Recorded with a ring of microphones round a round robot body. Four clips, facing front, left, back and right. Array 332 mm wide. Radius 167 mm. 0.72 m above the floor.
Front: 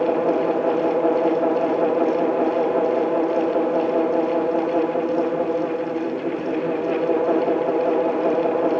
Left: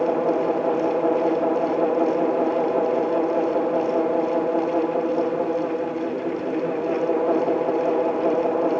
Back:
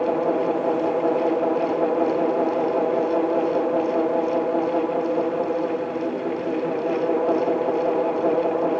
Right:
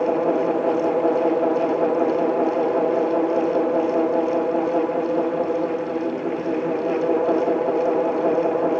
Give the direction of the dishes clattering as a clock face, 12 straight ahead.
I don't hear dishes clattering.